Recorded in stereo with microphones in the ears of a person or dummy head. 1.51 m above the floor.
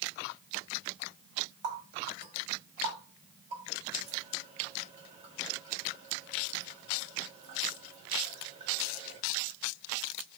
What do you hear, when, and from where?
1.6 s a running tap: 35° right (ahead or behind), 1.7 m